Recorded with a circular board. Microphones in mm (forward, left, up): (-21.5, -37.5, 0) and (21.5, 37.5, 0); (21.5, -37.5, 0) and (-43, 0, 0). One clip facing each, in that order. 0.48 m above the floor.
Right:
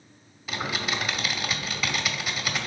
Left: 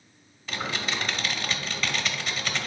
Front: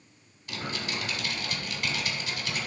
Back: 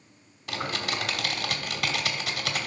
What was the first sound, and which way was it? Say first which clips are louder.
Typing on a keyboard: right 1 dB, back 4 dB; 160° left.